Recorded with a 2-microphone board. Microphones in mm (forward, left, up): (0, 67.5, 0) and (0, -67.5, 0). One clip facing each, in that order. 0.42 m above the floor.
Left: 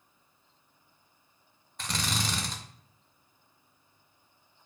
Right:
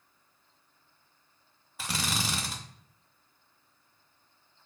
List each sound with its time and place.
1.8 s a drill: 5° right (ahead or behind), 0.5 m